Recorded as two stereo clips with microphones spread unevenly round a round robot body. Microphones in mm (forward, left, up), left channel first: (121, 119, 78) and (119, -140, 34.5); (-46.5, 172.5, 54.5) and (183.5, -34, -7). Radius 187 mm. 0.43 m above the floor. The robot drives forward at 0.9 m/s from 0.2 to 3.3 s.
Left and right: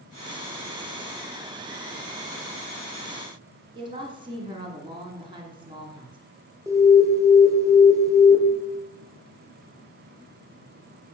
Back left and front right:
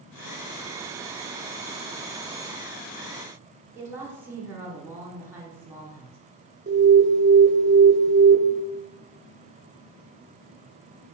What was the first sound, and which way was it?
A woman speaking, 90° right.